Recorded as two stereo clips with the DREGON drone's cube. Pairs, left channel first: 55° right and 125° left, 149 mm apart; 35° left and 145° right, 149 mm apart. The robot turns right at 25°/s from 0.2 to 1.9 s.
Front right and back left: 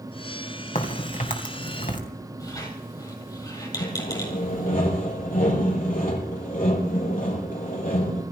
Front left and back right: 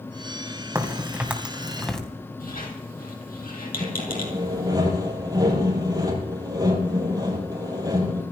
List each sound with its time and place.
0.8 s a crack: 80° right, 2.5 m; by 2.0 s 50° right, 2.5 m
2.4 s a squeak: 10° left, 4.5 m
3.8 s sawing: 80° right, 6 m